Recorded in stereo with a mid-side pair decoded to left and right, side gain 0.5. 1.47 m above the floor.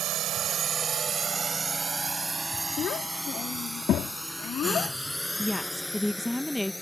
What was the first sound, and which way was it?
A drone, 70° right.